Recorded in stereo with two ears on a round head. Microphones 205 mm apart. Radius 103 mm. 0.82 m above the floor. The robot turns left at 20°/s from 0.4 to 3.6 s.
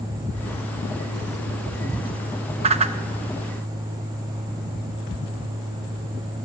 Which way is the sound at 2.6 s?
25° right (ahead or behind).